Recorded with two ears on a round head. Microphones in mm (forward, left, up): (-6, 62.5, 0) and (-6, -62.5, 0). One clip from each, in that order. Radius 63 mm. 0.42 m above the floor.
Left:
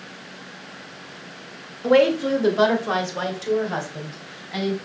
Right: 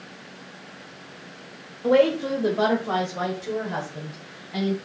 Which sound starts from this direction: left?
A woman speaking, at 1.8 s.